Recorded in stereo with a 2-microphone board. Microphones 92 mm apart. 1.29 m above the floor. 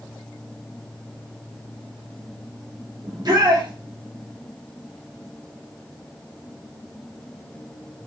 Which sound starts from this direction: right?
A shout, at 3.0 s.